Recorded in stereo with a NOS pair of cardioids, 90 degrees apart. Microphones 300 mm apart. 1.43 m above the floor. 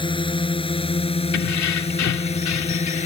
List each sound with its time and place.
0.0 s a drone: 15° left; by 3.1 s 20° left
1.3 s keys jangling: 65° left